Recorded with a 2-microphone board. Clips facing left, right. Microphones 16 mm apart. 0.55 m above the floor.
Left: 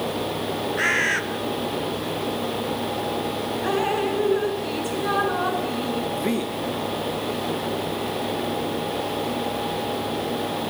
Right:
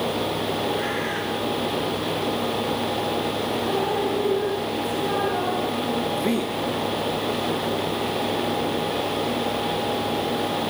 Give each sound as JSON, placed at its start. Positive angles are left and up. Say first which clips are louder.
{"t": 0.8, "sound": "a bird", "louder": "left 5 dB", "side_deg": 85, "distance_m": 2.5}
{"t": 3.6, "sound": "dripping", "louder": "left 3 dB", "side_deg": 65, "distance_m": 6.5}
{"t": 6.1, "sound": "a man speaking", "louder": "right 1 dB", "side_deg": 5, "distance_m": 1.8}